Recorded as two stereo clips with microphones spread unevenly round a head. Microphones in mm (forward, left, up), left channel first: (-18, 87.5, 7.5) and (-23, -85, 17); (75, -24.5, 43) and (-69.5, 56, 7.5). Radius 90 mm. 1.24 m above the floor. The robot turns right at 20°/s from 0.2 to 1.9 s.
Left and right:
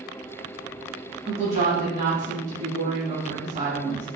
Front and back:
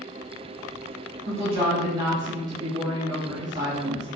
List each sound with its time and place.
1.3 s a woman speaking: 150° right, 1.7 m; by 4.1 s 140° right, 1.7 m